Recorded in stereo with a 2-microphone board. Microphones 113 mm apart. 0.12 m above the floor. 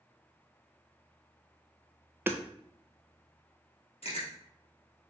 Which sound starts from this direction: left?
Chewing, at 4.0 s.